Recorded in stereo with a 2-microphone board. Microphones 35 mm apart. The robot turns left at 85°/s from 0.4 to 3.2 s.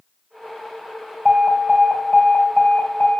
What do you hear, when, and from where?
1.2 s an alarm: 135° right, 3 m; by 3.2 s 60° left, 3 m